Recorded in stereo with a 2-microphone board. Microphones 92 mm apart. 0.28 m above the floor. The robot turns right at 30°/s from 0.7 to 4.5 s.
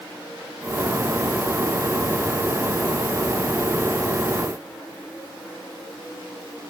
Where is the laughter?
I don't hear laughter.